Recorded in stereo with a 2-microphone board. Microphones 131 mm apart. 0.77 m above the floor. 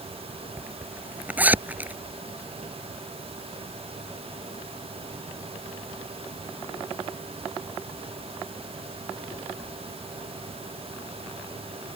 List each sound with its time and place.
0.6 s a zipper: 10° right (ahead or behind)